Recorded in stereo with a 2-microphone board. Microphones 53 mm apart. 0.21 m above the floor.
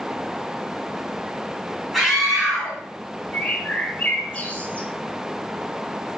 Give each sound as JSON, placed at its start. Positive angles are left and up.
{"t": 1.9, "sound": "a scream", "side_deg": -5, "distance_m": 1.8}
{"t": 3.3, "sound": "a bird", "side_deg": 30, "distance_m": 0.7}